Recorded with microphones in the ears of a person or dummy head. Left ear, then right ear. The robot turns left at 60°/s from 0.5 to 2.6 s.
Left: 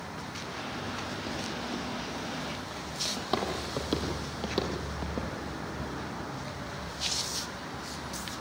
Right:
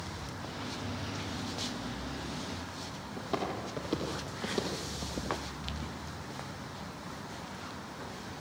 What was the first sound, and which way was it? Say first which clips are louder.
Footsteps: right 1 dB; 30° left (ahead or behind).